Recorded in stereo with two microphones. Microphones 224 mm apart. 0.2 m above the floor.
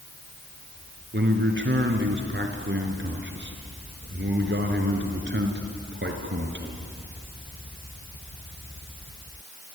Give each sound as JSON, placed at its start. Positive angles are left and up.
{"t": 1.1, "sound": "a man speaking", "side_deg": -55, "distance_m": 3.5}